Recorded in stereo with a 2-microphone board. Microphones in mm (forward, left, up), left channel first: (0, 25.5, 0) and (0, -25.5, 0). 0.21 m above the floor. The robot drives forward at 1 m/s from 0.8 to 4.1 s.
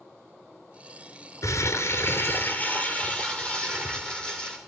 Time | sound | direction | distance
1.4 | crumpling | 75° left (ahead or behind) | 0.9 m